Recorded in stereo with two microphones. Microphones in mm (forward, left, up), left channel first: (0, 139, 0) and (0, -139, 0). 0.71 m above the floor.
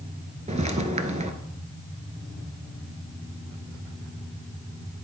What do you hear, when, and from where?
0.5 s footsteps: 25° right (ahead or behind), 0.7 m